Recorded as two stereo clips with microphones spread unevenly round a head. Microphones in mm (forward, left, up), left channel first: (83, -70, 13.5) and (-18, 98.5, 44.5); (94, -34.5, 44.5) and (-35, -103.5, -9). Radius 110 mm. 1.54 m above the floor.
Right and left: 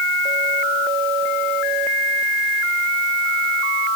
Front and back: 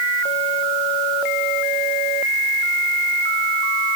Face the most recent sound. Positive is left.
No sound to turn to.